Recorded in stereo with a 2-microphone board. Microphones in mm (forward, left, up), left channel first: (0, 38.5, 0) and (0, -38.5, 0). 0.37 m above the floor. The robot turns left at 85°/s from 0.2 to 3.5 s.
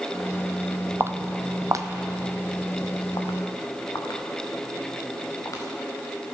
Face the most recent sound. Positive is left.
turn(degrees=50)  # may be behind; listen again after turning